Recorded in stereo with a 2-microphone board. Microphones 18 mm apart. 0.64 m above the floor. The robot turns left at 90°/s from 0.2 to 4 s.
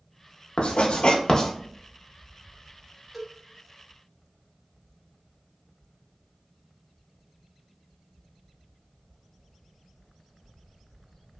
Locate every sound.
0.6 s writing: 70° left (ahead or behind), 0.6 m; by 1.5 s 25° left (ahead or behind), 0.6 m
3.1 s a cowbell: 10° right (ahead or behind), 0.7 m; by 3.3 s 5° left (ahead or behind), 0.7 m